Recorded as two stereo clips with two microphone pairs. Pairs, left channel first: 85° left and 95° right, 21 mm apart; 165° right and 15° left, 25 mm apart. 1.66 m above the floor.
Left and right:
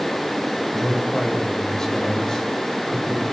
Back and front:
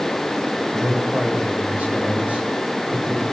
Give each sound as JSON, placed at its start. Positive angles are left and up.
{"t": 0.7, "sound": "a man speaking", "azimuth_deg": 25, "distance_m": 9.0}